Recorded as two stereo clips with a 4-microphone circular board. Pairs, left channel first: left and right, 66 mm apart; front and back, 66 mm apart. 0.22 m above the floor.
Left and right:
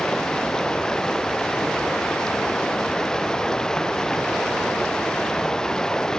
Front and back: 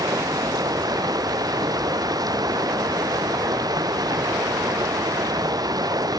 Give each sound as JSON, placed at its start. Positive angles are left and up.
{"t": 0.0, "sound": "running water", "azimuth_deg": 170}